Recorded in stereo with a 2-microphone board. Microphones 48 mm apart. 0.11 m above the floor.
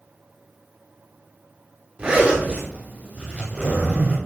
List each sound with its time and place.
2.0 s a zipper: 20° right (ahead or behind), 4.5 m